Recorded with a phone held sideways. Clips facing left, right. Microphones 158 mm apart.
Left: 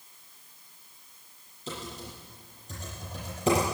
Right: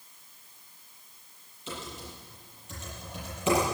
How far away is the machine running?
No machine running in this recording.